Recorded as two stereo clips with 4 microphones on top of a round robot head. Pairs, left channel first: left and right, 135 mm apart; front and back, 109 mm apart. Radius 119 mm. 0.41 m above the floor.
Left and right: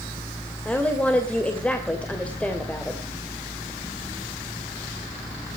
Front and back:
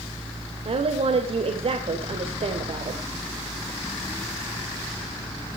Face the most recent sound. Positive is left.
turn(degrees=170)